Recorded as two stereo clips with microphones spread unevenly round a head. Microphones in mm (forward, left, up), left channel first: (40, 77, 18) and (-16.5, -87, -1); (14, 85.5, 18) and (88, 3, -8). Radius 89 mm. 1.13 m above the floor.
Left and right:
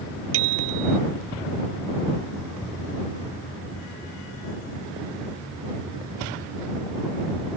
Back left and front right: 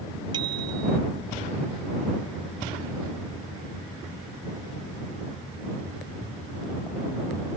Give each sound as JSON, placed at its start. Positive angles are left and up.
{"t": 0.3, "sound": "a bicycle bell", "azimuth_deg": -115}